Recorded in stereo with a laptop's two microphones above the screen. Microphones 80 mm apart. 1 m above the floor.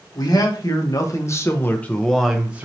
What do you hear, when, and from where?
0.1 s a man speaking: 55° left (ahead or behind), 1.3 m; by 2.7 s 20° right (ahead or behind), 0.7 m